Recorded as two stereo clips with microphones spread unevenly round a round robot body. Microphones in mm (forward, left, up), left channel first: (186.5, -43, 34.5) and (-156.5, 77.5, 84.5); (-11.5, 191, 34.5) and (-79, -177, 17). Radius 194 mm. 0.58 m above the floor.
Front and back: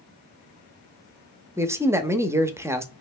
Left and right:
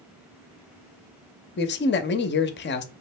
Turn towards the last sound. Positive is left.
turn(degrees=70)